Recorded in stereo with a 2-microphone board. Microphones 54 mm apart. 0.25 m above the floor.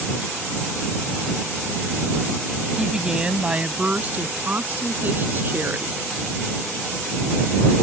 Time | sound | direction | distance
2.8 | a woman speaking | 10° right (ahead or behind) | ?